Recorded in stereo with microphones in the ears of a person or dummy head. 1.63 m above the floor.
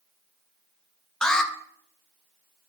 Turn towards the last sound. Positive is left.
turn(degrees=5)  # may be behind; listen again after turning